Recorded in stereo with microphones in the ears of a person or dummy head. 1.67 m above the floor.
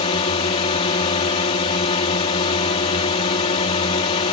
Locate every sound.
0.0 s a drone: 40° left (ahead or behind)